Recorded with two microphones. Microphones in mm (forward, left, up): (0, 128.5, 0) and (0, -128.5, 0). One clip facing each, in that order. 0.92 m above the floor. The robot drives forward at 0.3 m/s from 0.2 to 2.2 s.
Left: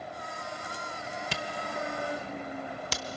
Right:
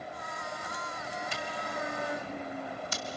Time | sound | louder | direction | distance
1.3 | a camera shutter | left 3 dB | 70° left (ahead or behind) | 1.2 m